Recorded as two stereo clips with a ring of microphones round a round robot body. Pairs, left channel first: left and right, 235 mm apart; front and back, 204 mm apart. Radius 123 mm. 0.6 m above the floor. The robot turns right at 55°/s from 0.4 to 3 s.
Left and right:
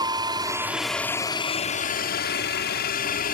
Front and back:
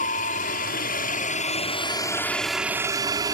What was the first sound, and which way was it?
A helicopter, 25° right.